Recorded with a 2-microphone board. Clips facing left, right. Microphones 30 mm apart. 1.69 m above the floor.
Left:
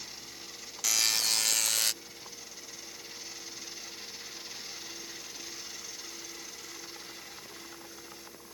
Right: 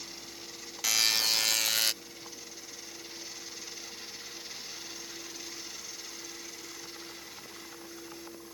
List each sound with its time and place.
0.8 s a buzzer: 20° right (ahead or behind)